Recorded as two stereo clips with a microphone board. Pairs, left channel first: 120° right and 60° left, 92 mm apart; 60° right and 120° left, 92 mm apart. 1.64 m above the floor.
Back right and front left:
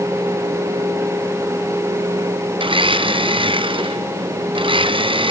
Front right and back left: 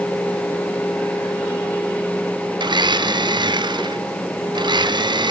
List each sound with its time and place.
2.6 s a blender: 85° left, 0.6 m